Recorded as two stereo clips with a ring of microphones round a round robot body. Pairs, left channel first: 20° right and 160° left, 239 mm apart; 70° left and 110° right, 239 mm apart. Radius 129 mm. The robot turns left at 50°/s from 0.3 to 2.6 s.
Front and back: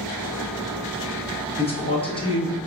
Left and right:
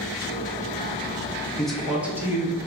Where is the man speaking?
15° right, 1.0 m; by 2.6 s 65° right, 1.0 m.